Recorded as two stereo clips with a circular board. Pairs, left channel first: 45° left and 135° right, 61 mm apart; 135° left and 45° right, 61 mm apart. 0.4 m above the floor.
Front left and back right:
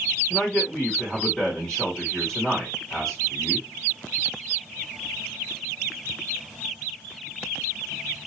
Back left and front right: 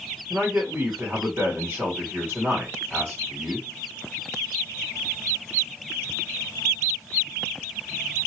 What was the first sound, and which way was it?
A man speaking, 15° right.